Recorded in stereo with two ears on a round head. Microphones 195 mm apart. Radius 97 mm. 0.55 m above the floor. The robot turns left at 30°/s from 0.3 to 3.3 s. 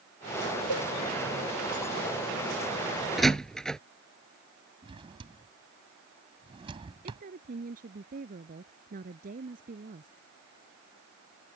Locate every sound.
0.7 s a cowbell: 70° left (ahead or behind); by 0.9 s 75° left (ahead or behind)
3.2 s a door slam: centre (ahead or behind); by 3.8 s 5° left (ahead or behind)
4.8 s a drawer: 25° right (ahead or behind)
7.0 s a woman speaking: 40° right (ahead or behind)